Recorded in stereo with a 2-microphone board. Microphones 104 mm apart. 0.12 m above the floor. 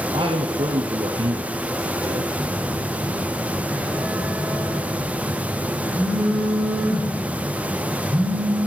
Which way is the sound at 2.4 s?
10° left (ahead or behind).